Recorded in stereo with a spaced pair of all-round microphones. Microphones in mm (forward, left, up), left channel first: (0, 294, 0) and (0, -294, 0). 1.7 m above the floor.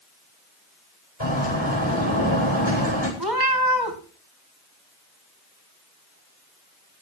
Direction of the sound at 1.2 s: 45° left (ahead or behind).